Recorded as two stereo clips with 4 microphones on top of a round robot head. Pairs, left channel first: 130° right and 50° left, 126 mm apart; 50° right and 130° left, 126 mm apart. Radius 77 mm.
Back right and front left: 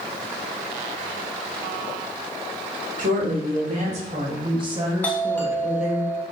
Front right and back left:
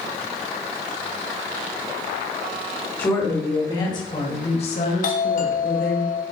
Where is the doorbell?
55° right, 2.5 m.